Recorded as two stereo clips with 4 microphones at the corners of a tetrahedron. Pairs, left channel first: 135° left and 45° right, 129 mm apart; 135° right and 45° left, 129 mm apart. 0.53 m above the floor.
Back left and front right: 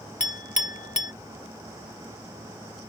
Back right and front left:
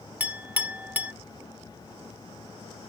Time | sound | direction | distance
0.2 | a clink | 120° left | ?